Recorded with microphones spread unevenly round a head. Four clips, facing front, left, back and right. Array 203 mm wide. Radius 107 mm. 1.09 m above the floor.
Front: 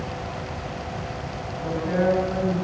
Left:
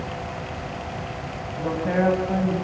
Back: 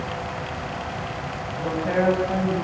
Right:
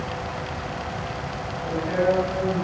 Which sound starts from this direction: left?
A woman speaking, at 1.6 s.